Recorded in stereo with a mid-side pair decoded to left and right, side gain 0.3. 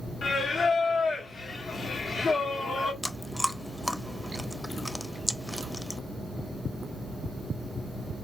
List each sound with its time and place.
0.2 s singing: 65° left, 1.0 m
3.0 s chewing: 15° left, 0.6 m